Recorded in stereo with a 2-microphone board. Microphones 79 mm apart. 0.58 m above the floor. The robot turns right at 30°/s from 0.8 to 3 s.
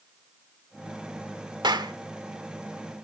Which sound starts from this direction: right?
A clap, at 1.6 s.